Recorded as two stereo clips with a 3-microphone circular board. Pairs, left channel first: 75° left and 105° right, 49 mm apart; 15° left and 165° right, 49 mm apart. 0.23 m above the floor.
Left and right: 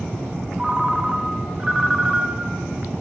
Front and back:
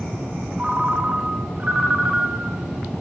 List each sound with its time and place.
0.6 s a ringtone: 165° right, 0.7 m